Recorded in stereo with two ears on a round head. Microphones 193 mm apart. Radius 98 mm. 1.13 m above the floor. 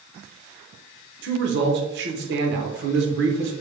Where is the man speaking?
55° right (ahead or behind), 0.8 m.